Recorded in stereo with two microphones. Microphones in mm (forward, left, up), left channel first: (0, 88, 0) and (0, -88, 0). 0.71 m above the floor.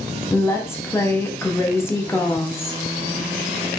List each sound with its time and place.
0.3 s a woman speaking: 15° left (ahead or behind), 0.8 m